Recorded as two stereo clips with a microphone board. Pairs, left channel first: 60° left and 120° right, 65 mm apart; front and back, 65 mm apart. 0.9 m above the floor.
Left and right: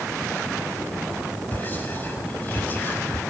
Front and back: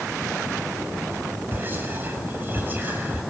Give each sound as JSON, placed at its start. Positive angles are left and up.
{"t": 1.5, "sound": "whispering", "azimuth_deg": 120, "distance_m": 5.0}